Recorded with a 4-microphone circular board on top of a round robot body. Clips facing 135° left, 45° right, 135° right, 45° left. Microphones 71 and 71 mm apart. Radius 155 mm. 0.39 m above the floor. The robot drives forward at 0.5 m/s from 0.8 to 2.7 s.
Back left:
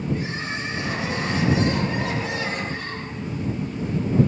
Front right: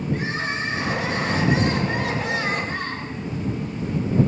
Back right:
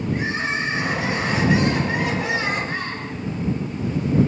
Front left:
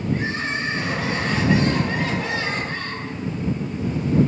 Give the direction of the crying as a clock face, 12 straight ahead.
2 o'clock.